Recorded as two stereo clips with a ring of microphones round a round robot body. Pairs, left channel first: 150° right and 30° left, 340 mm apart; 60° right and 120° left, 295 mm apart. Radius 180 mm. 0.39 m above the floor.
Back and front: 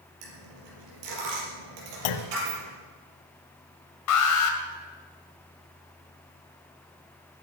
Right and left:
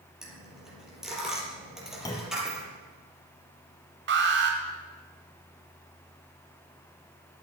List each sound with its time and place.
0.2 s a dropped coin: 30° left, 5.5 m
2.0 s a clunk: 140° right, 0.8 m
4.1 s an alarm: 175° left, 1.8 m